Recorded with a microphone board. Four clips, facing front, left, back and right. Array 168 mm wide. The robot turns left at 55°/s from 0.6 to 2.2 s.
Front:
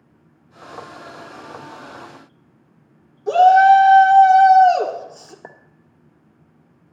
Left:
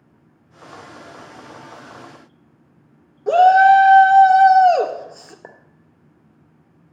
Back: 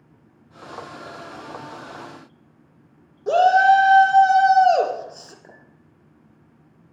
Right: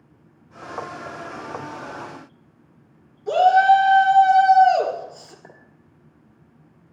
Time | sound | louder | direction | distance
3.3 | a shout | left 4 dB, front 4 dB | 115° left | 2.5 m
5.4 | a clink | left 4 dB, front 6 dB | 40° left | 1.9 m